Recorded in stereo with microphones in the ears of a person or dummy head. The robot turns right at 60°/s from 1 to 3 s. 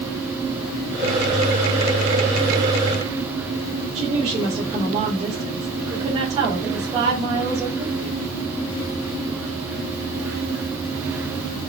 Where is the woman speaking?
35° right (ahead or behind), 3.5 m.